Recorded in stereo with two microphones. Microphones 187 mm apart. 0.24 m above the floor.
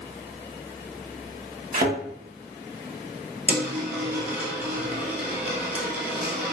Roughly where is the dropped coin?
Centre.